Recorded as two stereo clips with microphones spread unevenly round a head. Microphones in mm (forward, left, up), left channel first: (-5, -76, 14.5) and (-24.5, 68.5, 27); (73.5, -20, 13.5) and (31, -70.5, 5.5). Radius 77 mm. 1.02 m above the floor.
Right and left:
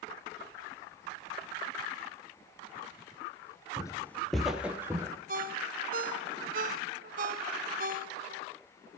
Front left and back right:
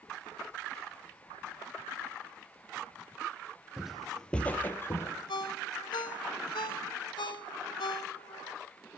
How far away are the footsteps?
About 1.0 m.